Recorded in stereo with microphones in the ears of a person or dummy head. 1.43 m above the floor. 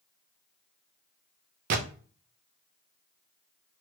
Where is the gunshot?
45° right (ahead or behind), 0.5 m.